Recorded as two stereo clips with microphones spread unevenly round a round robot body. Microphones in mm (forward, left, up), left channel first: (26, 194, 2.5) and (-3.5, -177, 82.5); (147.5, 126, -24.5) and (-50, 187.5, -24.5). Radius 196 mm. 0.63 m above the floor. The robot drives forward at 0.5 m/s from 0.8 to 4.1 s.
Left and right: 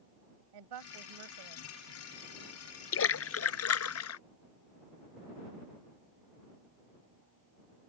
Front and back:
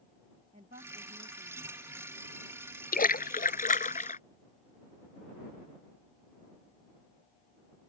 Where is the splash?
30° left; by 4.2 s 35° left.